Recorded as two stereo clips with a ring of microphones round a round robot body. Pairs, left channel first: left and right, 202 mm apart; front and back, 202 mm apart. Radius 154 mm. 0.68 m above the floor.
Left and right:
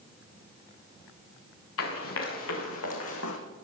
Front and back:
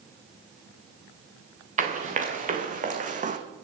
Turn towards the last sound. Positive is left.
turn(degrees=130)